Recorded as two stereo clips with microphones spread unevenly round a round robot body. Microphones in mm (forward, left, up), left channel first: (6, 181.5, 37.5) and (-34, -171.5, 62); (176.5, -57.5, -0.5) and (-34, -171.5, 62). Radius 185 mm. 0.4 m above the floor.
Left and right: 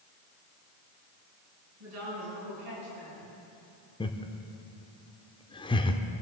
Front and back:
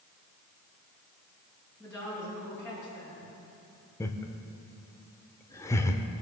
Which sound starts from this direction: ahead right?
A woman speaking, at 1.8 s.